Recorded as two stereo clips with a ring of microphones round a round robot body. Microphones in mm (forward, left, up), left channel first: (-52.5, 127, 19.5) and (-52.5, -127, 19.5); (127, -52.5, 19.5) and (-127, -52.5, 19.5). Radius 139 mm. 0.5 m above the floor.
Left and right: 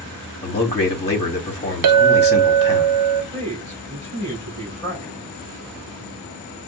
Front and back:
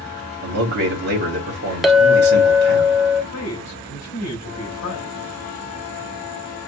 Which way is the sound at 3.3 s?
10° left.